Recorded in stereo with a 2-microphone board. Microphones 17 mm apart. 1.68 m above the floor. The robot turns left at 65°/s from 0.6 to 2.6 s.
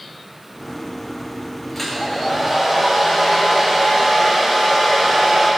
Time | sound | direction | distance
1.8 | a hair dryer | 15° left | 5 m